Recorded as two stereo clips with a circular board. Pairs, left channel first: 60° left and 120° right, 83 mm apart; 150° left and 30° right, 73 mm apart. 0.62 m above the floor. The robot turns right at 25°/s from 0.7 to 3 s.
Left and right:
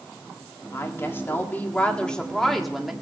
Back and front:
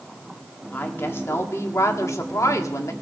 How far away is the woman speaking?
About 1.6 m.